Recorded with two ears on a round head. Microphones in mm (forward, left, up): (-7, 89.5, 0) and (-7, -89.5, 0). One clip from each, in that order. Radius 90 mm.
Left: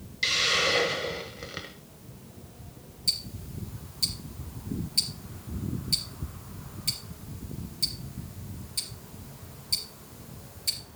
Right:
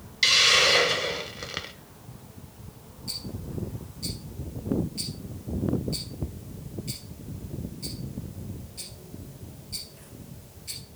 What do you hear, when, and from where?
0.2 s a hiss: 25° right (ahead or behind), 1.0 m
3.1 s ticking: 75° left (ahead or behind), 3 m